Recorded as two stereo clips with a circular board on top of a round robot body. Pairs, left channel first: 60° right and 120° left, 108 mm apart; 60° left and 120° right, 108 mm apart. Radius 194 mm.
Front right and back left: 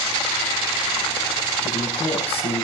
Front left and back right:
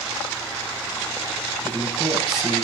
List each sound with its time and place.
1.6 s a man speaking: 35° right, 7 m